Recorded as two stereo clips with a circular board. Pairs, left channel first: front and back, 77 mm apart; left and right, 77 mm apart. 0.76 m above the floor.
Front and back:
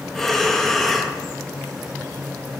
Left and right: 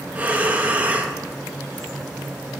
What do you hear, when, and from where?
0.1 s breathing: 80° right, 0.8 m